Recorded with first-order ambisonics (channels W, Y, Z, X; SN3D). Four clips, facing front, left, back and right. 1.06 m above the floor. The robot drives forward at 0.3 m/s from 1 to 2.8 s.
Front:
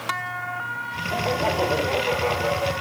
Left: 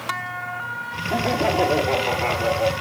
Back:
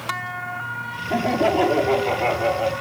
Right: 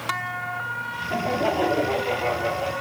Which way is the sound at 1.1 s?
170° left.